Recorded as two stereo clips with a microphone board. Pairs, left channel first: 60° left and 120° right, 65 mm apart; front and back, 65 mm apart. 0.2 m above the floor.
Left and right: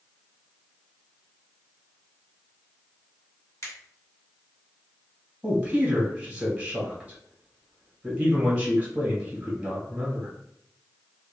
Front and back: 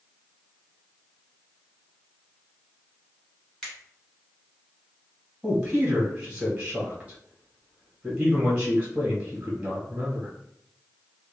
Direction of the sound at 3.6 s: 70° left.